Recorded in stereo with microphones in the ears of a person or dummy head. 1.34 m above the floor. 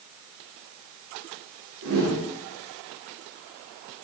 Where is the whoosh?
60° right (ahead or behind), 1.9 m.